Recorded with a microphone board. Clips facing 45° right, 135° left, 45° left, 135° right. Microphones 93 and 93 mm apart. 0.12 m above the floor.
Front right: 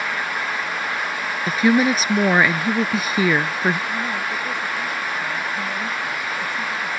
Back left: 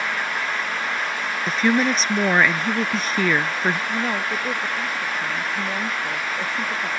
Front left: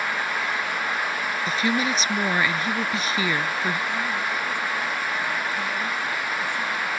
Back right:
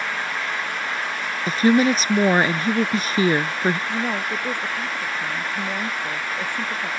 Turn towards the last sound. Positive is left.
turn(degrees=-170)